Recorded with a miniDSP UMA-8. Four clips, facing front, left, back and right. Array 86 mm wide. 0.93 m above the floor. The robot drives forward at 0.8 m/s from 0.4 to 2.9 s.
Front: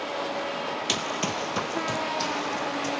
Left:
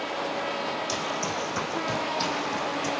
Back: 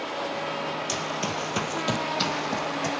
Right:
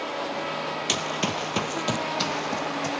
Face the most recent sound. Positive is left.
turn(degrees=-155)